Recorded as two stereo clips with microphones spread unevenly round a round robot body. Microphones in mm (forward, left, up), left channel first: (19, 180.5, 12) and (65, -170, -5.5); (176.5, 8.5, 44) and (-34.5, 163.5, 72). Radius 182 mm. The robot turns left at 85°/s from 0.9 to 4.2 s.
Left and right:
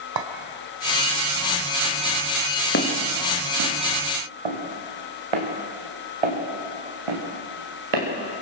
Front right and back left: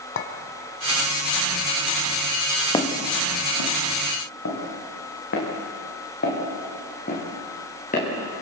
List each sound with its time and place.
0.2 s a clink: 70° right, 1.5 m
2.7 s footsteps: 40° left, 3 m; by 8.1 s 105° right, 5.5 m